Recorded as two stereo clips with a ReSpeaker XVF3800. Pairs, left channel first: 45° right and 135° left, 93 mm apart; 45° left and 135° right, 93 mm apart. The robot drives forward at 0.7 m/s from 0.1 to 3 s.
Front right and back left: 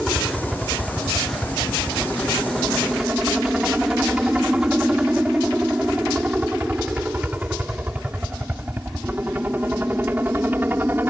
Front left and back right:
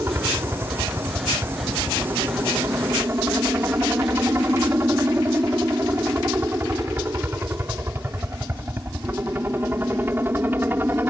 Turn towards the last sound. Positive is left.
turn(degrees=180)